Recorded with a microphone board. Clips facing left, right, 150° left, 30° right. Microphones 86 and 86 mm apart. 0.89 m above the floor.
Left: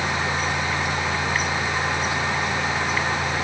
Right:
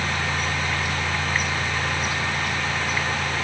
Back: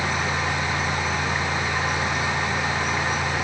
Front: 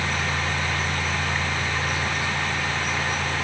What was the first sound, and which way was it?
Only background noise.